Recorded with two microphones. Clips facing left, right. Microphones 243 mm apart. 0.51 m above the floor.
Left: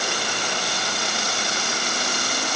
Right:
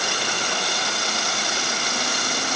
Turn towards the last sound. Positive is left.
No sound to turn to.